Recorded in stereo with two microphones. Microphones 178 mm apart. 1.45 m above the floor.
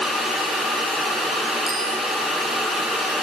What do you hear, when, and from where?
1.7 s a bicycle bell: 60° right (ahead or behind), 8 m